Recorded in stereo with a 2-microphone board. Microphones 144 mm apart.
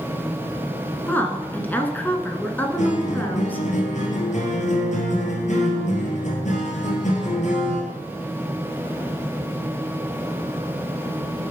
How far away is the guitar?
About 2.5 m.